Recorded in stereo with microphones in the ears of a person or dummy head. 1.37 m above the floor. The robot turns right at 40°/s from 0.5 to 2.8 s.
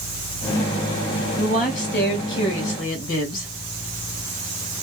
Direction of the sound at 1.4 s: 35° left.